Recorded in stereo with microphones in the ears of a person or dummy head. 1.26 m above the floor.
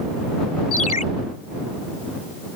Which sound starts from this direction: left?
A ringtone, at 0.7 s.